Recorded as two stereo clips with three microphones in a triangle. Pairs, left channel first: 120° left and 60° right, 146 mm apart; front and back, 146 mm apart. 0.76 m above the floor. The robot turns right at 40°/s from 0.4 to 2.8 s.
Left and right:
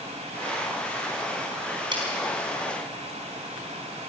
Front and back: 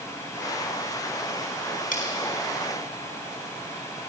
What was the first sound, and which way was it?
Cutlery clinking, 5° right.